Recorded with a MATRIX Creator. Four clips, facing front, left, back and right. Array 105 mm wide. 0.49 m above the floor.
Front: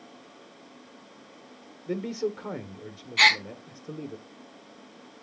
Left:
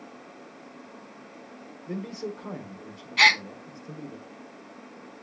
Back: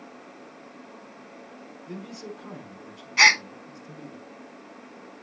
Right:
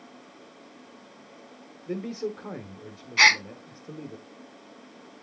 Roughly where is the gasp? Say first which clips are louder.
Even, back 2 dB; behind right.